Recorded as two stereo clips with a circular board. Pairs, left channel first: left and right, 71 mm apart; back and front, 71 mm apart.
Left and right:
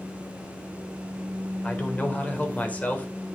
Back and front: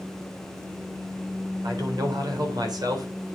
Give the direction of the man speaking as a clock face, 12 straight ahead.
11 o'clock.